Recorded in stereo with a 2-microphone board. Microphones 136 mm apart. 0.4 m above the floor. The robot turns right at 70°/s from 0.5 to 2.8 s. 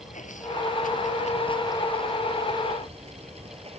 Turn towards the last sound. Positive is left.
turn(degrees=-130)